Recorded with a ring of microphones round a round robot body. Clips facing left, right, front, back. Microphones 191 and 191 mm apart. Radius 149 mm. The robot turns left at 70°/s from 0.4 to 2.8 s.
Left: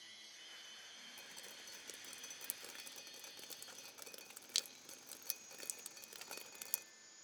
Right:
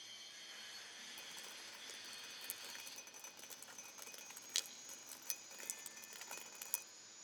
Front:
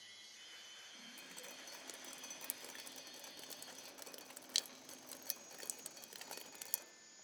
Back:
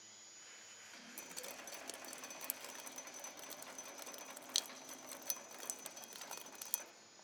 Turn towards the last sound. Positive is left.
turn(degrees=60)